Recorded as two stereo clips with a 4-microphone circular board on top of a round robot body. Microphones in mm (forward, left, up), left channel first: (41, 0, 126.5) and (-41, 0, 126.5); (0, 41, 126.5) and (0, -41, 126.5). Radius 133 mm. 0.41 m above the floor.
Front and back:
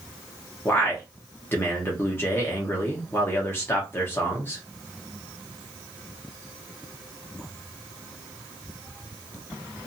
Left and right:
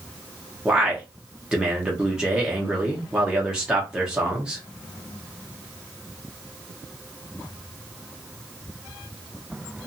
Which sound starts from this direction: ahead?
A man speaking, at 0.7 s.